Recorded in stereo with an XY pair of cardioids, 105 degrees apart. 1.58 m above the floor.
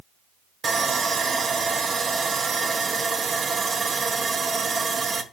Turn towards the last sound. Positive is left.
turn(degrees=-35)